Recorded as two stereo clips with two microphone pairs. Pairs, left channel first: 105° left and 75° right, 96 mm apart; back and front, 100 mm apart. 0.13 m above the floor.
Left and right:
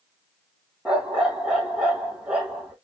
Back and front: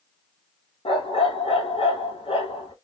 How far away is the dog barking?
About 1.1 m.